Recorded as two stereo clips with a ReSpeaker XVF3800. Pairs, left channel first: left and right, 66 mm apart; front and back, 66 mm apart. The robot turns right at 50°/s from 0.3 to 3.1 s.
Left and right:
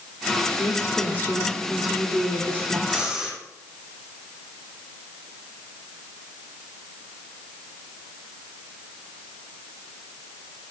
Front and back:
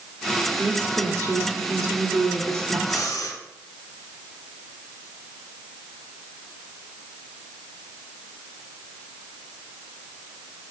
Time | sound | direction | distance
0.6 | a woman speaking | 120° left | 1.6 m
2.9 | breathing | 20° right | 2.5 m